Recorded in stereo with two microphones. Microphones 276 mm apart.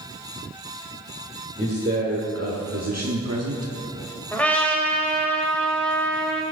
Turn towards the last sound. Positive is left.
turn(degrees=5)  # may be behind; listen again after turning